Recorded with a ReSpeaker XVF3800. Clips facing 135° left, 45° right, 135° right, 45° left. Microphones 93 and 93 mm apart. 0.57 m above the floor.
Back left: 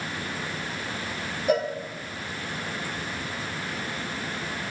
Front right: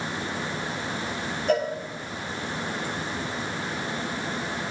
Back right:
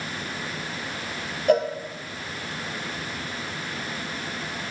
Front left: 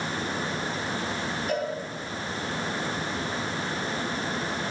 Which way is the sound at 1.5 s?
145° right.